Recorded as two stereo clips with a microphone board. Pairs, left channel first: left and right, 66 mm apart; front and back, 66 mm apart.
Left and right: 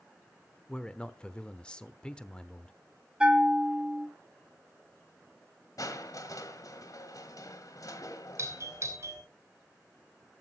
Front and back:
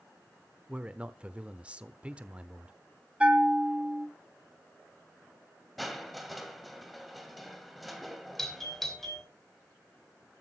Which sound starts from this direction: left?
Crushing, at 5.8 s.